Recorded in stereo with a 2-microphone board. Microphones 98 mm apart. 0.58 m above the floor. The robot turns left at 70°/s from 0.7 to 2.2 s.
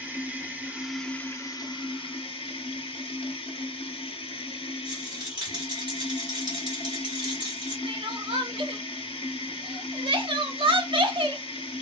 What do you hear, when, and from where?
0.0 s running water: 165° right, 0.8 m; by 11.8 s 90° left, 0.8 m
4.8 s a rattle: 50° right (ahead or behind), 1.5 m
7.8 s crying: 60° right (ahead or behind), 0.7 m